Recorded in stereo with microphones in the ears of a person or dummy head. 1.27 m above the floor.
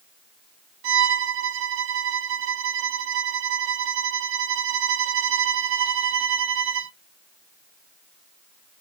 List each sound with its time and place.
0.8 s a violin: 65° right (ahead or behind), 0.9 m